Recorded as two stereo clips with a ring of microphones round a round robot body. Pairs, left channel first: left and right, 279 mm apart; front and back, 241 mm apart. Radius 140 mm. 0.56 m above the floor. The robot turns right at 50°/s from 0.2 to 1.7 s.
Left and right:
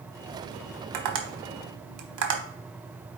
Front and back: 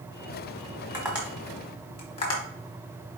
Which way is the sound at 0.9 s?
105° right.